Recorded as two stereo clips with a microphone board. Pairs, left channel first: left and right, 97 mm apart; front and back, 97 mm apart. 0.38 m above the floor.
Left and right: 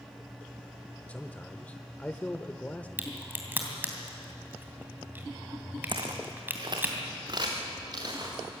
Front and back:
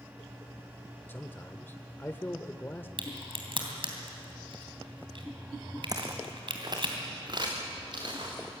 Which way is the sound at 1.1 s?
35° left.